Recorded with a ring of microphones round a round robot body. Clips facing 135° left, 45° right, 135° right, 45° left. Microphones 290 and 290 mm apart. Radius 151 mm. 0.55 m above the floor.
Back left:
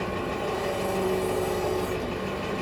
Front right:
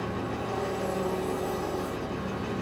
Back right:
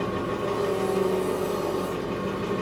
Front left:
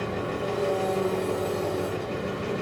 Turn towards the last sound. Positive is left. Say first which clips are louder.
# back left 3 dB, back right 2 dB
turn(degrees=145)